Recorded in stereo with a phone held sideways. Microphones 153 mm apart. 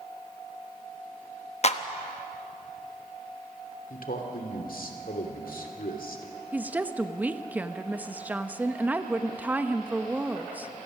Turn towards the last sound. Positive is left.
turn(degrees=-10)  # may be behind; listen again after turning